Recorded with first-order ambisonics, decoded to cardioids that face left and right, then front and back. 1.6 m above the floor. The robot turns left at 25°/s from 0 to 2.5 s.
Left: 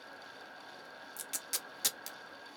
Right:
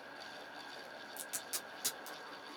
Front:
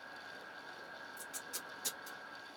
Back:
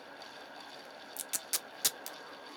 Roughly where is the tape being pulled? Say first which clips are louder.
Left 4 dB, back 10 dB; behind.